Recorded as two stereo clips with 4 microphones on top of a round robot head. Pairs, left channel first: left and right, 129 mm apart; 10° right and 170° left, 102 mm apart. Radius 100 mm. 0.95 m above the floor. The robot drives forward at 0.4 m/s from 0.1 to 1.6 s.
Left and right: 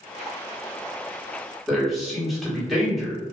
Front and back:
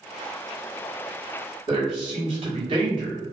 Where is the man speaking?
Straight behind, 1.5 m.